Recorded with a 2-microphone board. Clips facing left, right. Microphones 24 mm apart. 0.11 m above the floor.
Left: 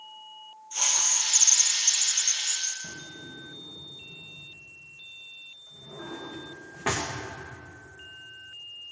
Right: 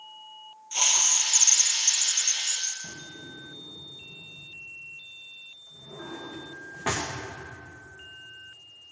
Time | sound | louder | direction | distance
0.7 | a hiss | right 3 dB | 55° right (ahead or behind) | 1.7 m
2.8 | a drawer | even | 15° left (ahead or behind) | 3 m